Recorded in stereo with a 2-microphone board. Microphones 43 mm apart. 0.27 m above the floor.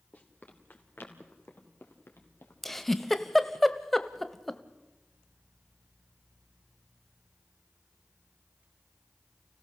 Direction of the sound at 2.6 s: 5° left (ahead or behind).